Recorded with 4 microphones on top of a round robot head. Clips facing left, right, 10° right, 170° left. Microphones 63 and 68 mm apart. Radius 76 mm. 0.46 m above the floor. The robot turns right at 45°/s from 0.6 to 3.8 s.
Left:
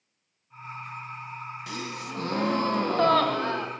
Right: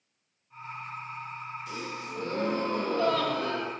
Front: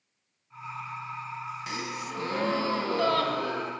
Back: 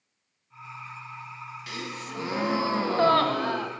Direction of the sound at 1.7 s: 60° left.